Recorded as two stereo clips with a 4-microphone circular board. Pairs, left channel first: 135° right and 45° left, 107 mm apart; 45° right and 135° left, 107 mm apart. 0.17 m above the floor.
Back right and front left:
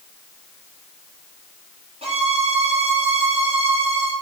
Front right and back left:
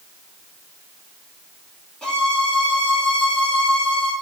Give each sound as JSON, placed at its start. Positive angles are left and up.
{"t": 2.0, "sound": "a violin", "azimuth_deg": 40, "distance_m": 2.5}